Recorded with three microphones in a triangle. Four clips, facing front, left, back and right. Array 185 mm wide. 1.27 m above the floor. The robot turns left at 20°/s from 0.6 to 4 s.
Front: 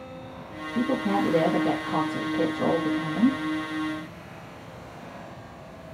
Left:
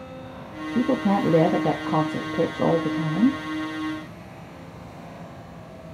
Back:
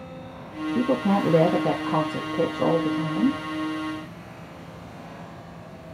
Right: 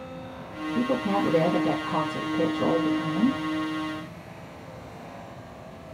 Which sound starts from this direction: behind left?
A woman speaking, at 0.8 s.